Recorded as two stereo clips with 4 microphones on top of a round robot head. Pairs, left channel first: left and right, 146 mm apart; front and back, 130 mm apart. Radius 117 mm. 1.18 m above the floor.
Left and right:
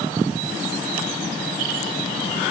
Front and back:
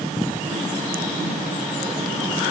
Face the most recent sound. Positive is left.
No sound to turn to.